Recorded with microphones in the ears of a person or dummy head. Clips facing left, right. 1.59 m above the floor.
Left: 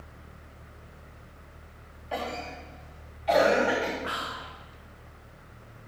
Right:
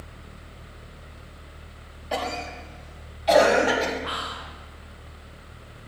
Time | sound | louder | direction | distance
2.1 | a cough | right 4 dB | 60° right (ahead or behind) | 4 m
4.0 | whispering | right 2 dB | 30° left (ahead or behind) | 1.1 m